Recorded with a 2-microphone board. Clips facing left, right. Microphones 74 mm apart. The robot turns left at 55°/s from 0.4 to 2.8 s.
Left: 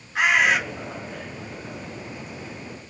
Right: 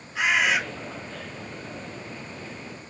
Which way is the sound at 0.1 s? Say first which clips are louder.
Left 3 dB; 60° left (ahead or behind).